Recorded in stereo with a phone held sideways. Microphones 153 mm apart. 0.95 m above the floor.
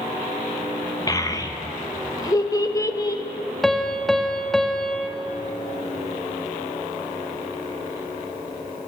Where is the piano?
Centre (ahead or behind), 0.6 m.